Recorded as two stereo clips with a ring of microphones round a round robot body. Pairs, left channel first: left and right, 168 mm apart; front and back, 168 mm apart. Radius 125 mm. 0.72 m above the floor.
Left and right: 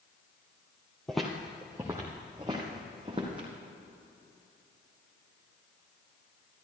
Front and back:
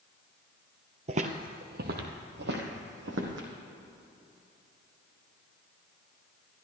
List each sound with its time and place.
1.1 s footsteps: 175° left, 0.8 m; by 3.5 s 160° right, 1.9 m